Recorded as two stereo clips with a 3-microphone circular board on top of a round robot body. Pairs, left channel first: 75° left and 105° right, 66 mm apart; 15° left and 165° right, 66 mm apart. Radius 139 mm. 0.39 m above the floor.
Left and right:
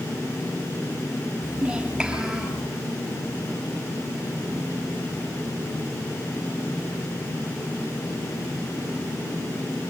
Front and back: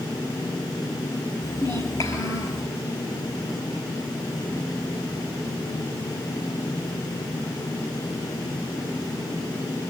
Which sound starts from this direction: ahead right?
A child speaking, at 1.4 s.